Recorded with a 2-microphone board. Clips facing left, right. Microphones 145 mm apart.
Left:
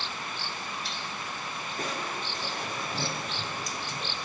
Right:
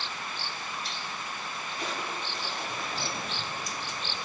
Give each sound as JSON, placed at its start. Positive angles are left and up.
{"t": 1.8, "sound": "crushing", "side_deg": 50, "distance_m": 4.0}